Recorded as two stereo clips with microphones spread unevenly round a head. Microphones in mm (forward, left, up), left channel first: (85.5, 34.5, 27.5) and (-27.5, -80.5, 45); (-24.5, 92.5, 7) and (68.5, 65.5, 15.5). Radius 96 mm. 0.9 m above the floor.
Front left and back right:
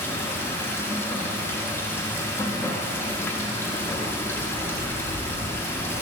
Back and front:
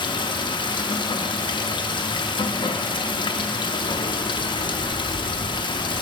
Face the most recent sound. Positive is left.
turn(degrees=120)